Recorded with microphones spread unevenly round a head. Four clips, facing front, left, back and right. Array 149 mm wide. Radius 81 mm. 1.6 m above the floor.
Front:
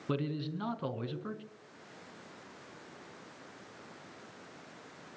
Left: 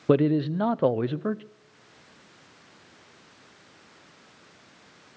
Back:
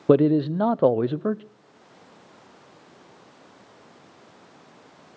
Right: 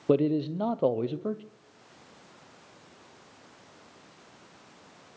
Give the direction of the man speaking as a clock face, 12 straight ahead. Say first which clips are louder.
Left 3 dB, back 18 dB; 6 o'clock.